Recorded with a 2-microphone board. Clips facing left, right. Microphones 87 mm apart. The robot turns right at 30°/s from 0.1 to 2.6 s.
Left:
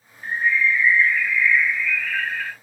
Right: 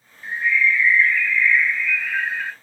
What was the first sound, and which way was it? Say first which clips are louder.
A bird: even; 135° left.